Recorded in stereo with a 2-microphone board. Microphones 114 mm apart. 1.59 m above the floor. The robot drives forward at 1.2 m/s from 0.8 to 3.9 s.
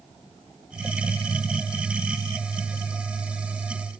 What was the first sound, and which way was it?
Only background noise.